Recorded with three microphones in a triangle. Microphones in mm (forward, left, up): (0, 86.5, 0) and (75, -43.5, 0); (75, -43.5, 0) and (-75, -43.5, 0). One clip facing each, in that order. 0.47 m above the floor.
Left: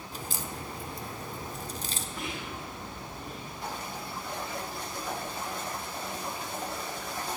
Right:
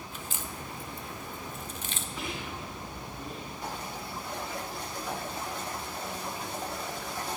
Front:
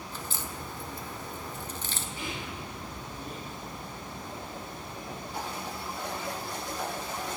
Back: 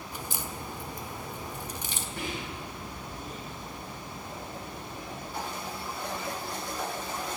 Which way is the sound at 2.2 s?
150° right.